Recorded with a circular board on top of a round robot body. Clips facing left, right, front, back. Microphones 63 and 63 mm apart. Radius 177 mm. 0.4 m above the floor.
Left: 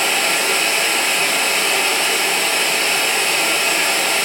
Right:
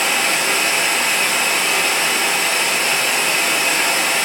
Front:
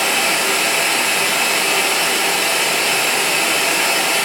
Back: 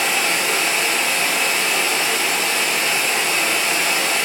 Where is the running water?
30° right, 1.9 m.